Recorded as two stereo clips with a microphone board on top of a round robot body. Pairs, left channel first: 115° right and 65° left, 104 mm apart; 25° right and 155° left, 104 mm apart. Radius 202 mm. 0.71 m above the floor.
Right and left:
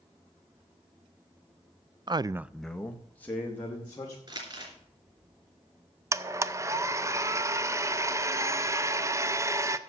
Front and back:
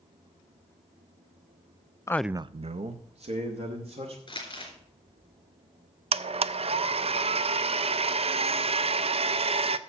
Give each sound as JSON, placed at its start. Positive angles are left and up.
{"t": 2.1, "sound": "a man speaking", "azimuth_deg": 30, "distance_m": 0.5}
{"t": 4.3, "sound": "crumpling", "azimuth_deg": 20, "distance_m": 3.5}
{"t": 6.1, "sound": "a blender", "azimuth_deg": 130, "distance_m": 0.6}